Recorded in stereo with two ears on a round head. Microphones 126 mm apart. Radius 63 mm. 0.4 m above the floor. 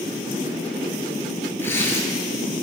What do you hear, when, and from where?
1.6 s tearing paper: 15° left (ahead or behind), 6 m